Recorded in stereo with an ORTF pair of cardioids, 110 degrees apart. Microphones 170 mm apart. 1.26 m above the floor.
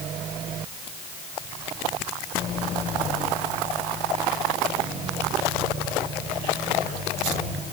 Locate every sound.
Only background noise.